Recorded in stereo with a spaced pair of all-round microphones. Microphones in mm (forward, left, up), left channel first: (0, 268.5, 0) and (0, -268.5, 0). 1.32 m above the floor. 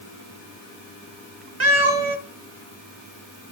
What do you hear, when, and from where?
1.6 s a cat meowing: 60° right (ahead or behind), 2 m